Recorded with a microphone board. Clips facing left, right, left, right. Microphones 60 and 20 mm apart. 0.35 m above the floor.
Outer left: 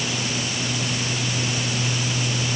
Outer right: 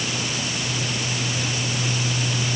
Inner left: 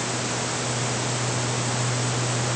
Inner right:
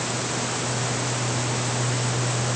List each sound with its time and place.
Only background noise.